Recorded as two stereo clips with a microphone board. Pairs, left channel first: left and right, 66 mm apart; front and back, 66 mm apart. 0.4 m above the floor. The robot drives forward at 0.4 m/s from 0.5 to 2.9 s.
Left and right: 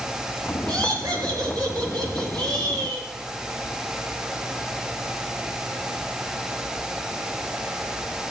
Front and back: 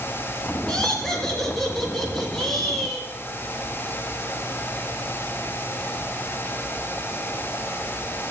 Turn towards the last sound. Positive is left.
turn(degrees=-90)